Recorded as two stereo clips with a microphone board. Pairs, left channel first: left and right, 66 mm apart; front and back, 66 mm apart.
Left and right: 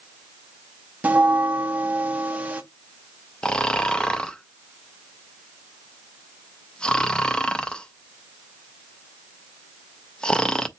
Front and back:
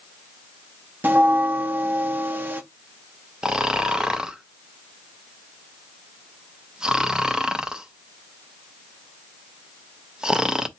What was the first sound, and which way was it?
A bell, 140° right.